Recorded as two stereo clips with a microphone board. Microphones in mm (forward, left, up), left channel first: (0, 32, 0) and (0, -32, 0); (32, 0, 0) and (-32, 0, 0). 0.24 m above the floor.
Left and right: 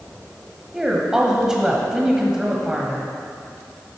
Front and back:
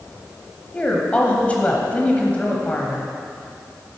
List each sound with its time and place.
0.7 s a woman speaking: 25° right, 1.2 m